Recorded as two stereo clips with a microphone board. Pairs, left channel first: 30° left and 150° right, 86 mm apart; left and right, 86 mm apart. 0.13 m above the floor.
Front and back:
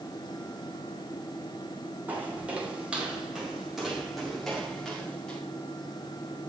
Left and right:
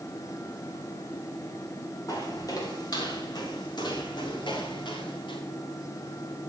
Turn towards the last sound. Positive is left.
turn(degrees=110)